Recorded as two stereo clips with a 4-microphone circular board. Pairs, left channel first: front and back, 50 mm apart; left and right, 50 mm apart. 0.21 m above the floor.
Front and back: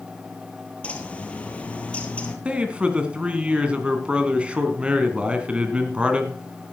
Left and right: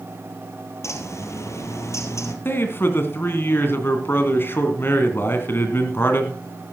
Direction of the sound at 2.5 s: 115° left.